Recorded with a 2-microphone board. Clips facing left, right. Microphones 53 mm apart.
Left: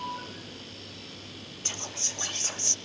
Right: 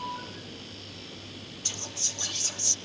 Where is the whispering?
35° left (ahead or behind), 0.9 m.